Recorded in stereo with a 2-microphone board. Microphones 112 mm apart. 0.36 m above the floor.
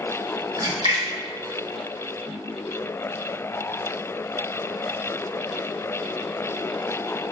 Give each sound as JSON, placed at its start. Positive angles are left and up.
{"t": 0.6, "sound": "a splash", "side_deg": -45, "distance_m": 0.9}